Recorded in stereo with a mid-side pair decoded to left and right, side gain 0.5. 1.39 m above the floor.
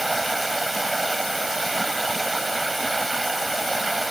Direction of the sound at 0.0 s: 15° right.